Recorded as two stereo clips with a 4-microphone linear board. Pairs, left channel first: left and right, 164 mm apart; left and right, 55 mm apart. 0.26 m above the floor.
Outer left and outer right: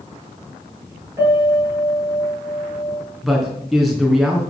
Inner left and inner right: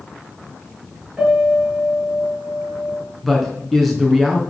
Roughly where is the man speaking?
Centre.